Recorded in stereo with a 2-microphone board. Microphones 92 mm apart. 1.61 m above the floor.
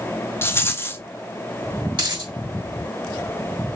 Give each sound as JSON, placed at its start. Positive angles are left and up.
{"t": 0.4, "sound": "a rattle", "side_deg": 25, "distance_m": 0.7}
{"t": 1.9, "sound": "a dropped coin", "side_deg": -55, "distance_m": 2.0}